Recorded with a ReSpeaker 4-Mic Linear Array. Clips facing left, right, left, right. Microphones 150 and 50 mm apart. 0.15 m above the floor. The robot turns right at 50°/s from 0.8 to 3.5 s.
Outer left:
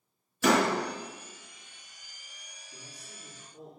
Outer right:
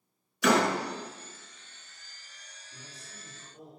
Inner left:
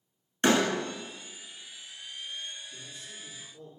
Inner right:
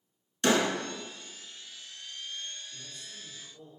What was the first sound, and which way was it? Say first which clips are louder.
A door slam: even, inner left 1 dB; 40° left (ahead or behind).